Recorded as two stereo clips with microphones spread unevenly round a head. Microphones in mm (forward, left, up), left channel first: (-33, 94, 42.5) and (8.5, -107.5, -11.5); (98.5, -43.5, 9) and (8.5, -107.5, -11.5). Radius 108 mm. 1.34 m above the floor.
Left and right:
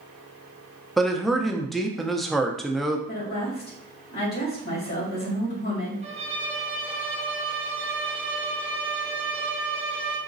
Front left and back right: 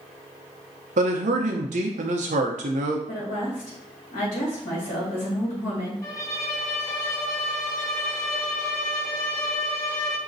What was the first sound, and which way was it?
A man speaking, 170° right.